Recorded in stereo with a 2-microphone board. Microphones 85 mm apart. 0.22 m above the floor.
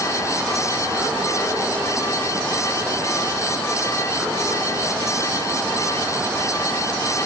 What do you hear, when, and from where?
Only background noise.